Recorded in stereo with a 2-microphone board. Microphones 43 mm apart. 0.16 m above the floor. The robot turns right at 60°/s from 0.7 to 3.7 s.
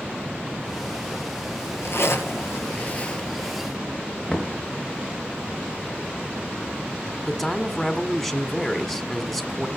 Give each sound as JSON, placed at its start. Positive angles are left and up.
{"t": 1.6, "sound": "a zipper", "azimuth_deg": 60, "distance_m": 2.5}
{"t": 4.3, "sound": "knocking", "side_deg": 15, "distance_m": 2.0}
{"t": 7.2, "sound": "a man speaking", "side_deg": 0, "distance_m": 1.6}